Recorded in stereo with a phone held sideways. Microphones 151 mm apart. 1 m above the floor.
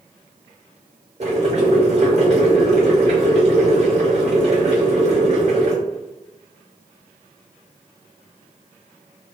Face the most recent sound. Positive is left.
turn(degrees=-45)  # may be behind; listen again after turning